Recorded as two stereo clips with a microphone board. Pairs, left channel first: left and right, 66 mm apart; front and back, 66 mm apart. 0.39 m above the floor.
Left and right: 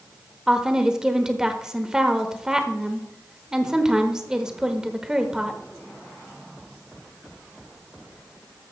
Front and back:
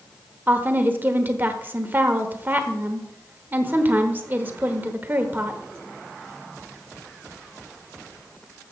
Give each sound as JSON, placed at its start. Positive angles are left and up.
{"t": 0.5, "sound": "a woman speaking", "azimuth_deg": -155, "distance_m": 1.0}